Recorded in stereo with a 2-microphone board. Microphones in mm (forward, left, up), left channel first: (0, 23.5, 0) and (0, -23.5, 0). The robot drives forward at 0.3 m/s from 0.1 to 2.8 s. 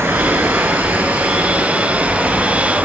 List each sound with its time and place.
0.0 s running water: 70° right (ahead or behind), 0.8 m; by 2.9 s 35° right (ahead or behind), 1.3 m